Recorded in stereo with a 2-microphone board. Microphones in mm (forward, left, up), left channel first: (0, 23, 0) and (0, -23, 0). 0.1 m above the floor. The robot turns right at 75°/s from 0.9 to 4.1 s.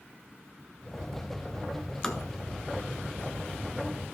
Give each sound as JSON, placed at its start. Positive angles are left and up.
{"t": 2.0, "sound": "tapping", "side_deg": 15, "distance_m": 1.0}